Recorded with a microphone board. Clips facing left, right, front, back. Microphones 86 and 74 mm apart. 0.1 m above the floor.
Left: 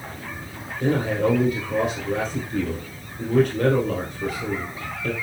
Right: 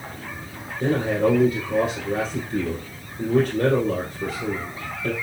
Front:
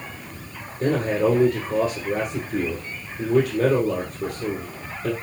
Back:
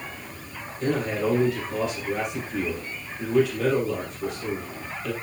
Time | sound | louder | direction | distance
0.8 | a man speaking | right 1 dB, front 4 dB | 40° right | 2.5 m